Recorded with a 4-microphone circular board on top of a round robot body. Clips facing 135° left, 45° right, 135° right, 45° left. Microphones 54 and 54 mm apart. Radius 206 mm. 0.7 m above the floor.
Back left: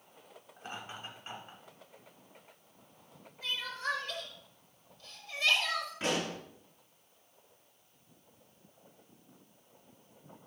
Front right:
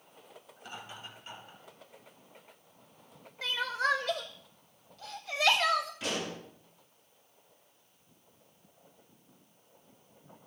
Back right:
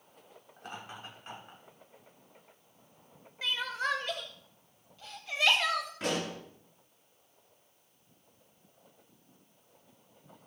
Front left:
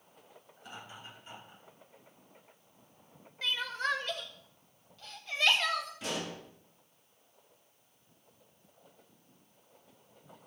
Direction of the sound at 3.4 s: 55° right.